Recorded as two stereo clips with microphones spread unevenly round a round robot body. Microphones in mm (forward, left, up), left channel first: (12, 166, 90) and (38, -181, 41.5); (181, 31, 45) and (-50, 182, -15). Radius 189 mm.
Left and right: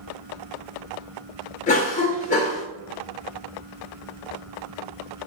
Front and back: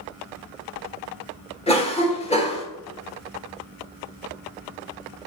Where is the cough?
35° left, 1.6 m.